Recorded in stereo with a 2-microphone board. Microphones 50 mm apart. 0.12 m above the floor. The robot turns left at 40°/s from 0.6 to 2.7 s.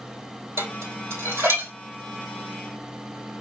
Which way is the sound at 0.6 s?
60° right (ahead or behind).